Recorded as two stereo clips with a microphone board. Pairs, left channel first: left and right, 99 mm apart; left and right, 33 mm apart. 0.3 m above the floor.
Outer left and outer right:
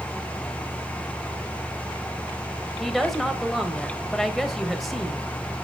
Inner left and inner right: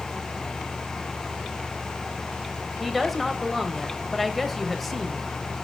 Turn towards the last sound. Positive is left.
turn(degrees=0)  # may be behind; listen again after turning